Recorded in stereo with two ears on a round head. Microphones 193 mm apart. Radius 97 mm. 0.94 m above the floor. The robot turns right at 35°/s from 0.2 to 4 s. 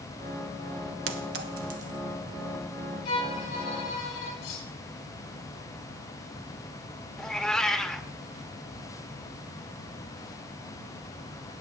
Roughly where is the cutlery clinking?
Left.